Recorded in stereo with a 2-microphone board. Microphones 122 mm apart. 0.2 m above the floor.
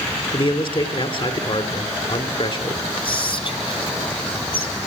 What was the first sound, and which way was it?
A man speaking, 45° left (ahead or behind).